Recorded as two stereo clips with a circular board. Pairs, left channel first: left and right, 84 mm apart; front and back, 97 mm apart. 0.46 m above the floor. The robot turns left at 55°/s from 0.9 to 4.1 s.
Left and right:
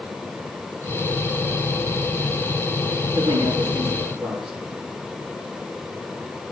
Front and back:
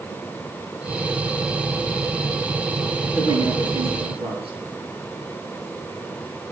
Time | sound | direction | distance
3.1 | a woman speaking | 115° right | 7.5 m